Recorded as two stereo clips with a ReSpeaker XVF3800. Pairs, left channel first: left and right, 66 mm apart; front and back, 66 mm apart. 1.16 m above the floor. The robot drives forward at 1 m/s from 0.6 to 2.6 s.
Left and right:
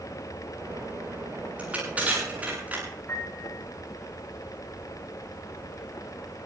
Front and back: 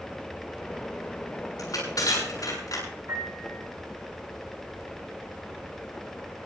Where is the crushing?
20° right, 9.5 m; by 2.8 s 25° right, 8.5 m.